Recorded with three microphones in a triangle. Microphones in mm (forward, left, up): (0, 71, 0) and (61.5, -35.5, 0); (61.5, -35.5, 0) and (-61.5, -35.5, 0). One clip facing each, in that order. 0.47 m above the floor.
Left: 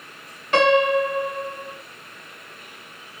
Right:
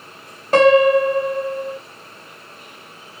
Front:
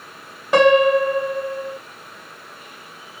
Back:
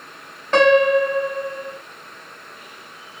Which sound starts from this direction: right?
A piano, at 0.5 s.